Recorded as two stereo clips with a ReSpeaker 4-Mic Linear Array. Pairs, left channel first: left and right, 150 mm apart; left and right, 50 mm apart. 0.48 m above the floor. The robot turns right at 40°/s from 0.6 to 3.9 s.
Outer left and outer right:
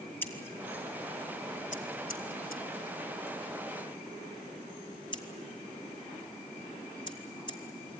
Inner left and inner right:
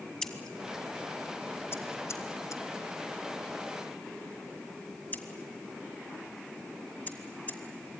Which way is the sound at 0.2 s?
15° left (ahead or behind).